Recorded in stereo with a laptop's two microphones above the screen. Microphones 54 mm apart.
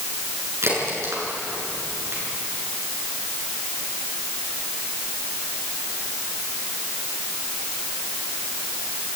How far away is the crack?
About 7 m.